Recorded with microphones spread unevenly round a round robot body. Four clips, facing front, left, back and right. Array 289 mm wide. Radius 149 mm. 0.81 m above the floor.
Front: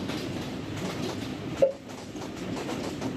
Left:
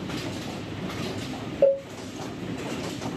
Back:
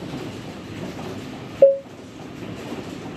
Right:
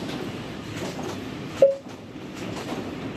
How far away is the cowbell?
About 2 m.